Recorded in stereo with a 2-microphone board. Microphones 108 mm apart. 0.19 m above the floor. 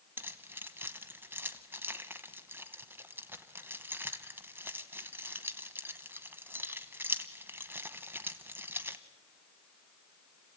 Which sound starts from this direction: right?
Keys jangling, at 0.2 s.